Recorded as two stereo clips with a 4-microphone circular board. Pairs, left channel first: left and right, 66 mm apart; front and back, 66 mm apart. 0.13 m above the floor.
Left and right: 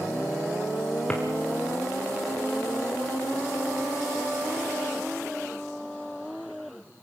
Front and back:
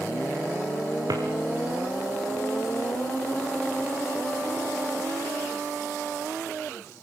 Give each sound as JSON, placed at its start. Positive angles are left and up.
{"t": 1.1, "sound": "a drawer", "azimuth_deg": 165, "distance_m": 4.0}